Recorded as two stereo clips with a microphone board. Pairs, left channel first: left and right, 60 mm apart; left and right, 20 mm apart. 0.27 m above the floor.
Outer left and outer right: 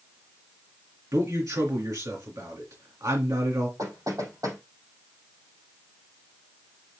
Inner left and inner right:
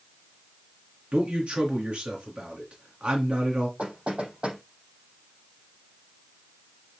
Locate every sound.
1.1 s a man speaking: 70° right (ahead or behind), 3 m
3.8 s knocking: 85° right, 6.5 m